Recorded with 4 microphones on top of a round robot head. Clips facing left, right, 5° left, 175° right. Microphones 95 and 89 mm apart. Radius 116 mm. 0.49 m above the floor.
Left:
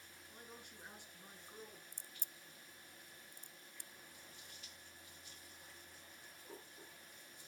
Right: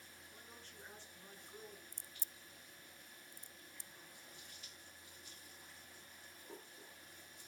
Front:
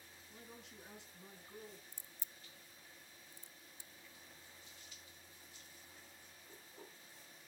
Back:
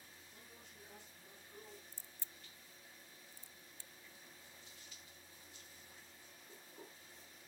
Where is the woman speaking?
15° left, 6.5 m.